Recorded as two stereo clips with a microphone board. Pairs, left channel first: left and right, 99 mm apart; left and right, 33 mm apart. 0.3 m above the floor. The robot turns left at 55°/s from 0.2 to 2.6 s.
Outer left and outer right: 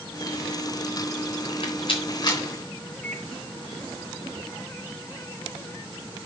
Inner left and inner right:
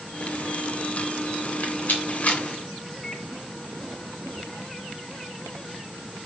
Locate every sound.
1.4 s a rattle: 65° left (ahead or behind), 3 m; by 2.4 s 45° left (ahead or behind), 3 m
3.0 s a microwave: 5° left (ahead or behind), 0.7 m